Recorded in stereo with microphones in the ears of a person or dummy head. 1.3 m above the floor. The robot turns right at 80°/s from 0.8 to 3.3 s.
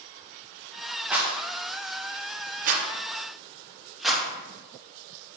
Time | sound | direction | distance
1.1 | a rattle | 5° right (ahead or behind) | 0.6 m